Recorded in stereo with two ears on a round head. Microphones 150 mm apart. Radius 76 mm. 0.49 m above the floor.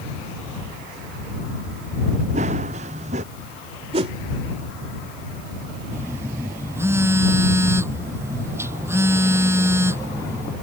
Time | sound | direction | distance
2.3 | running footsteps | 40° right (ahead or behind) | ?
3.9 | a whoosh | 35° right (ahead or behind) | ?
5.9 | a phone buzzing | 15° right (ahead or behind) | ?